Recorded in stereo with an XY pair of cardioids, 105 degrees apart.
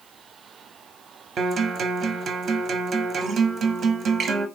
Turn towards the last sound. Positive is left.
turn(degrees=-55)